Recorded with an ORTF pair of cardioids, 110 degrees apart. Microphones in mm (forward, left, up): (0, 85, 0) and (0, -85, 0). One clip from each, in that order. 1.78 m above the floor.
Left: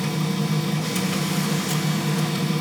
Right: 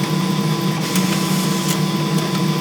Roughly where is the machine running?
Ahead right.